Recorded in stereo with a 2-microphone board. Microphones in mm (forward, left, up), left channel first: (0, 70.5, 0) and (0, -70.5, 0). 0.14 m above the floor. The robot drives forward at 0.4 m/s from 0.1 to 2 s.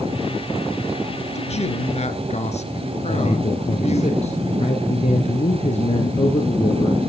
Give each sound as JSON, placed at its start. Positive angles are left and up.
{"t": 1.4, "sound": "a man speaking", "side_deg": 50, "distance_m": 2.0}
{"t": 3.1, "sound": "a man speaking", "side_deg": 50, "distance_m": 2.0}